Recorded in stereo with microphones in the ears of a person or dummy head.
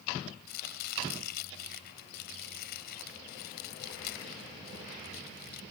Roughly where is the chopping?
Left.